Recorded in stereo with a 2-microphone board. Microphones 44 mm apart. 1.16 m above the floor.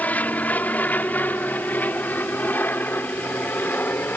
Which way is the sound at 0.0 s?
35° left (ahead or behind).